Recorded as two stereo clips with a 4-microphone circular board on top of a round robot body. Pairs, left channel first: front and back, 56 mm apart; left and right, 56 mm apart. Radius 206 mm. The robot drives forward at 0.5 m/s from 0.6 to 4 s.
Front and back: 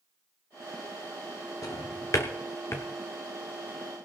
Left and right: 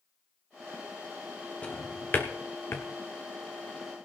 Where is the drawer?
25° left, 1.1 m; by 2.9 s 50° left, 0.6 m.